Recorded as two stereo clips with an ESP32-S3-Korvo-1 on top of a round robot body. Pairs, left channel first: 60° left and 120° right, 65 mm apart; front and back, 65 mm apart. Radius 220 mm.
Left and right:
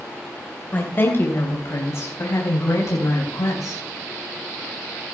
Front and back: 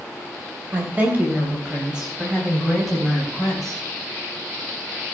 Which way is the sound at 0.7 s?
120° left.